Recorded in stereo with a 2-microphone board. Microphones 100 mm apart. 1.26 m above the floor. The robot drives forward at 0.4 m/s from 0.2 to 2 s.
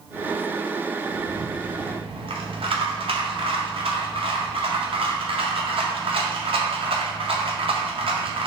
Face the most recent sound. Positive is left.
turn(degrees=-75)  # may be behind; listen again after turning